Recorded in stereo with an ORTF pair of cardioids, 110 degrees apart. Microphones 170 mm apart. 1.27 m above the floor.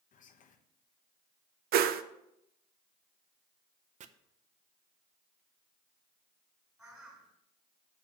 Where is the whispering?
50° left, 1.1 m.